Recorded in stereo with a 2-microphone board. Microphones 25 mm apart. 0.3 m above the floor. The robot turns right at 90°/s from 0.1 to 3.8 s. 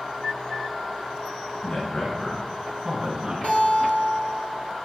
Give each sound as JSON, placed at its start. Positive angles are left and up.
{"t": 1.6, "sound": "a man speaking", "azimuth_deg": 105, "distance_m": 1.3}
{"t": 3.4, "sound": "a guitar", "azimuth_deg": 75, "distance_m": 1.4}